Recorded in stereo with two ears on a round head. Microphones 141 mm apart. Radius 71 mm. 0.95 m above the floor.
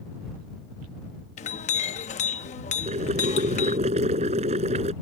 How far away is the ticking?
I don't hear ticking.